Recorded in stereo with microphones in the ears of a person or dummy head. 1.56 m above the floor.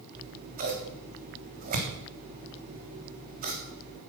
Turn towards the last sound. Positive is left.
turn(degrees=-45)  # may be behind; listen again after turning